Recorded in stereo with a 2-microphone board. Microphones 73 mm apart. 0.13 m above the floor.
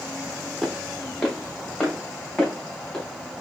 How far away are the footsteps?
About 1.4 m.